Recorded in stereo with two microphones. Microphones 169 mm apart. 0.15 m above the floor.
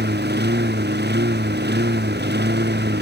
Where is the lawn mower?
80° right; by 3.0 s 85° right.